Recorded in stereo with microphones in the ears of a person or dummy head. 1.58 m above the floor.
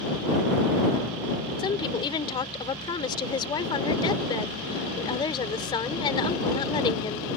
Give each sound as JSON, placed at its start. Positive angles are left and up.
{"t": 1.6, "sound": "a woman speaking", "side_deg": 25}